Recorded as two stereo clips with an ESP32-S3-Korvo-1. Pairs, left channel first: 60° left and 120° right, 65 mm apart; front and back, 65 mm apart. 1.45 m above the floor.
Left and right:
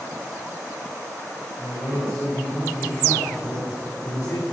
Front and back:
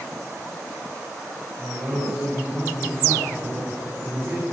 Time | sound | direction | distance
1.6 | a man speaking | 110° left | 6 m